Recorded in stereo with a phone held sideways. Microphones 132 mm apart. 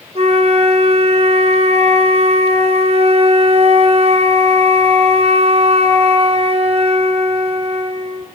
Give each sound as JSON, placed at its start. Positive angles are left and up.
{"t": 0.1, "sound": "a flute", "side_deg": -50, "distance_m": 0.7}